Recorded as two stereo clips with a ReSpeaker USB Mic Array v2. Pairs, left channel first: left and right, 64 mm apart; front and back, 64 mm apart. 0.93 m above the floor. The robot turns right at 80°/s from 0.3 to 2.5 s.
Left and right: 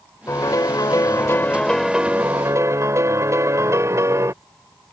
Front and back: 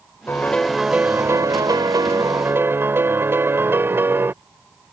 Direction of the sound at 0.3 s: 60° left.